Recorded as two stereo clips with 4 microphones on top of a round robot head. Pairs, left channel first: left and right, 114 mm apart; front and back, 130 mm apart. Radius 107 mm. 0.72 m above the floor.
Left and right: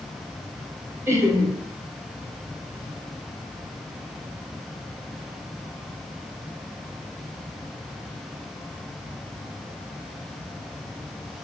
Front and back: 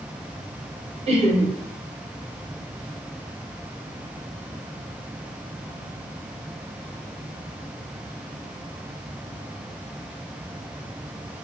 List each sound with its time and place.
1.1 s laughter: 155° right, 1.1 m